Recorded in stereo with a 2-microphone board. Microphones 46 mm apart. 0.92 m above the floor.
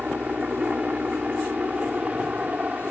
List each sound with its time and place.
0.0 s a helicopter: 30° right (ahead or behind)